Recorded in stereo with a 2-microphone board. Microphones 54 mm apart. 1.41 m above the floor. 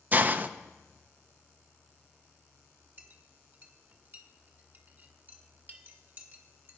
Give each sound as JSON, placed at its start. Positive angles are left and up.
{"t": 0.1, "sound": "a hiss", "side_deg": -35, "distance_m": 0.7}
{"t": 3.0, "sound": "a clink", "side_deg": -40, "distance_m": 1.8}